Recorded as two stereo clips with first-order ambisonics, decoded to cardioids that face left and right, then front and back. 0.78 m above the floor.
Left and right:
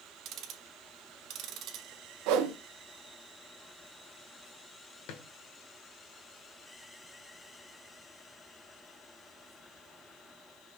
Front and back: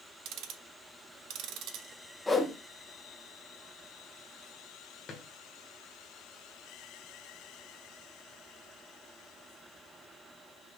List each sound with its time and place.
0.2 s ticking: 140° right, 1.1 m
2.3 s a whoosh: 80° right, 1.1 m
5.1 s a drawer: 70° left, 1.9 m